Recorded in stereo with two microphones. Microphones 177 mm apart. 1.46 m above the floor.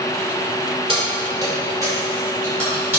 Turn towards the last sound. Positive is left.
turn(degrees=-10)  # may be behind; listen again after turning